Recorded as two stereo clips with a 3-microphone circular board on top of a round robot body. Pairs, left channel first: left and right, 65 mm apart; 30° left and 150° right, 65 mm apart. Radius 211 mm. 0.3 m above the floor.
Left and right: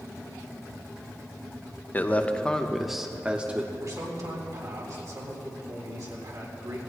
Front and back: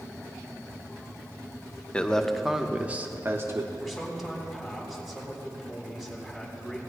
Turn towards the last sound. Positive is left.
turn(degrees=-60)